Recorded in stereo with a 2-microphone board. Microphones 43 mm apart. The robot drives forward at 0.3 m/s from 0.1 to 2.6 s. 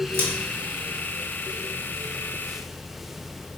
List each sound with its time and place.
0.1 s scissors: 65° right (ahead or behind), 0.9 m; by 0.3 s 70° right (ahead or behind), 0.9 m